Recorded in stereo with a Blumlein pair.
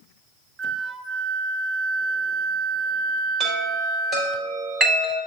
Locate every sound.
0.6 s a flute: 10° right, 0.7 m
3.4 s a chime: 25° right, 4.5 m